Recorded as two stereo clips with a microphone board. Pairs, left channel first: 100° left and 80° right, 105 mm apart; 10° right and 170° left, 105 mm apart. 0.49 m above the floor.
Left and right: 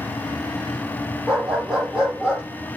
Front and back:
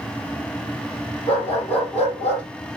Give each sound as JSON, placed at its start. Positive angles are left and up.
{"t": 1.3, "sound": "a dog barking", "azimuth_deg": 5, "distance_m": 7.5}